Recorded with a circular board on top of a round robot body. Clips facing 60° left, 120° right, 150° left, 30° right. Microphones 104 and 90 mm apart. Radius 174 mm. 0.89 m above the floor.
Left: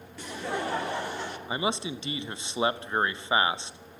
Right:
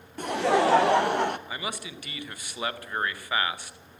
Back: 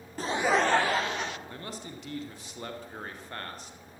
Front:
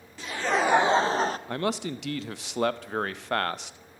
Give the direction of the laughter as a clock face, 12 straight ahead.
5 o'clock.